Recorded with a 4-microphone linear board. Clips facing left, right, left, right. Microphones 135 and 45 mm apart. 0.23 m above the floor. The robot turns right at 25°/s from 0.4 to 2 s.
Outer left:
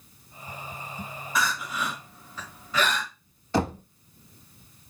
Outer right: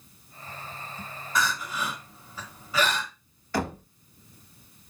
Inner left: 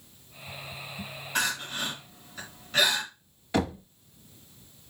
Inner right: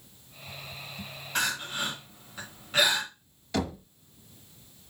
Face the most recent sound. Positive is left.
turn(degrees=25)  # may be behind; listen again after turning